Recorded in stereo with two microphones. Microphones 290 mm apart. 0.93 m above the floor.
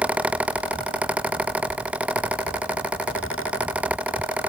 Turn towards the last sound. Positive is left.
No sound to turn to.